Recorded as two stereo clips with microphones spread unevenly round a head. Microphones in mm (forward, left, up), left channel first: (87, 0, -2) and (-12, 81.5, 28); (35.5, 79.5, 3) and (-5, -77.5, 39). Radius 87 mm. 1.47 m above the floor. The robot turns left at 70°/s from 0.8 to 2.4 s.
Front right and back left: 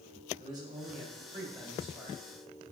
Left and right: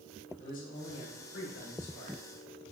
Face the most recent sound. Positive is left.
turn(degrees=5)